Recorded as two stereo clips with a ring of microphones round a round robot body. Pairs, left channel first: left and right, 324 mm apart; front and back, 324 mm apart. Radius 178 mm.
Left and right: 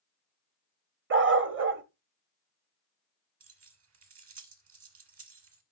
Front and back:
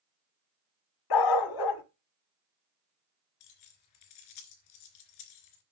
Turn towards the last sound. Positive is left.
turn(degrees=-40)